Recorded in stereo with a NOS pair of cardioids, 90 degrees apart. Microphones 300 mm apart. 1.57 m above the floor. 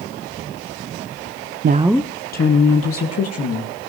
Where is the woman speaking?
40° right, 0.6 m; by 3.7 s 55° left, 2.5 m.